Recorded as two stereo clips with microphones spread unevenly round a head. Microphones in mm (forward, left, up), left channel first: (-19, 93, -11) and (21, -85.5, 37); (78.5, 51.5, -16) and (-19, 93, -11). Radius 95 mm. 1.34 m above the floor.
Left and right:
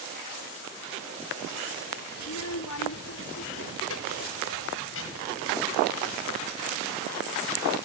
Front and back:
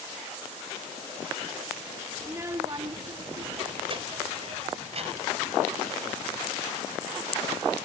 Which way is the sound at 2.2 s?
85° left.